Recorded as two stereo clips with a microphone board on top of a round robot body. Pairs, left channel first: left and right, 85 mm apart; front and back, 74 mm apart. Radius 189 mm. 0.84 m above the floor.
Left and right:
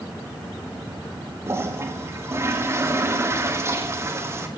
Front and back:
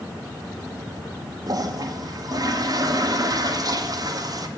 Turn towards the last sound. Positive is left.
turn(degrees=-150)